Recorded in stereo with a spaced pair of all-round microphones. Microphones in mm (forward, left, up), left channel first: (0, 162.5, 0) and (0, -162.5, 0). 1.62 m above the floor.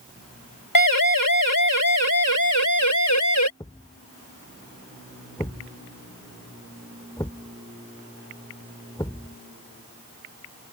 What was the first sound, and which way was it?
A siren, 85° left.